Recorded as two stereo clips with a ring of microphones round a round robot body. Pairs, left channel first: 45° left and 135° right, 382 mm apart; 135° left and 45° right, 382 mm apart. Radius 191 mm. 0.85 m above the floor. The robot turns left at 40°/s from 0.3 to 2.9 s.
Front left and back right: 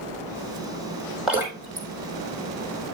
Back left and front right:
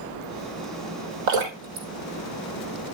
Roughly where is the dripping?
Ahead right.